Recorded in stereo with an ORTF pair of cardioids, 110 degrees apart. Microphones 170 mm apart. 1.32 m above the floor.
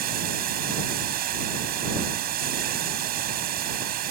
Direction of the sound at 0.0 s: 65° right.